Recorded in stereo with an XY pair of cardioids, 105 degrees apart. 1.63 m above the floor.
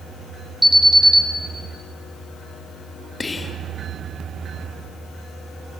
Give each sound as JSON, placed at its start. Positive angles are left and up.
{"t": 0.6, "sound": "an alarm", "azimuth_deg": 5, "distance_m": 3.0}
{"t": 3.2, "sound": "whispering", "azimuth_deg": 25, "distance_m": 2.5}